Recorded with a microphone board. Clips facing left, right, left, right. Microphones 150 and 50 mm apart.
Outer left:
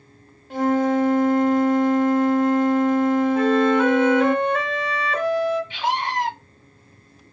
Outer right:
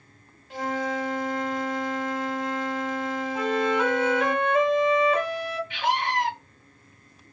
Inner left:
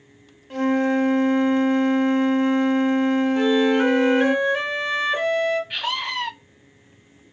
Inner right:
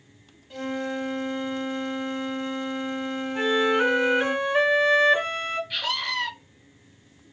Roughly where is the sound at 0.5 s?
Left.